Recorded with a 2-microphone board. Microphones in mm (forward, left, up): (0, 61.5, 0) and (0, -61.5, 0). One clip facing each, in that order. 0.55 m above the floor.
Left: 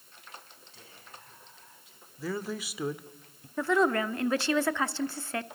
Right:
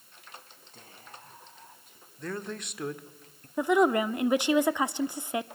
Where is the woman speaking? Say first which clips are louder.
Right 3 dB; 15° right (ahead or behind), 0.8 m.